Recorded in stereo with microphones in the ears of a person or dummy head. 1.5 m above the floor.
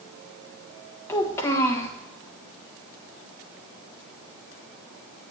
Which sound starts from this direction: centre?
A child speaking, at 1.1 s.